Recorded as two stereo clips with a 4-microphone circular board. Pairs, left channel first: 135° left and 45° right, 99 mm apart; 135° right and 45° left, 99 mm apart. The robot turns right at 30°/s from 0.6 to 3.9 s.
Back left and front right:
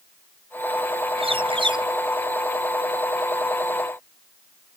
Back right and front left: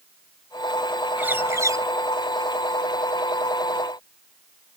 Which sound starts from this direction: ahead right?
A bird, at 1.2 s.